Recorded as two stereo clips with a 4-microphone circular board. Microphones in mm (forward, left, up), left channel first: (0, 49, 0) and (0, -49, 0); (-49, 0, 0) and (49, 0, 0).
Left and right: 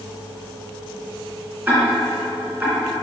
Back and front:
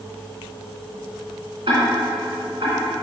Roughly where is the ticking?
Ahead.